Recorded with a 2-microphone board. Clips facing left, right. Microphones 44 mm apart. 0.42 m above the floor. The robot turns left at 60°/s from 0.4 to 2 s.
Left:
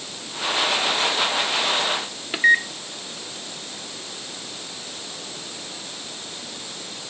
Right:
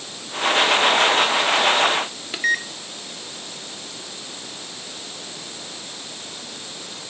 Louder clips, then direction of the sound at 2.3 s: Left 5 dB; 15° left (ahead or behind).